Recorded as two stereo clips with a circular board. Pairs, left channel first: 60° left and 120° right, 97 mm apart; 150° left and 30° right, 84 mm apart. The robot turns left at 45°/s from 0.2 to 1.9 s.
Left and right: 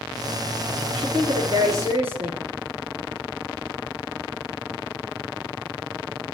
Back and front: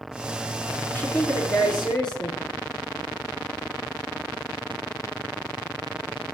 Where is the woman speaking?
140° right, 5.5 m; by 2.4 s 170° left, 5.5 m.